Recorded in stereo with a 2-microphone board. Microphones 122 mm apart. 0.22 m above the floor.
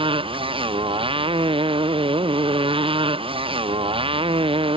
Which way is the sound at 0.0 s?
45° right (ahead or behind).